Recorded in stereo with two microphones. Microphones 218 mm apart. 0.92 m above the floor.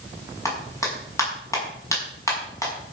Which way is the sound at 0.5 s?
15° left (ahead or behind).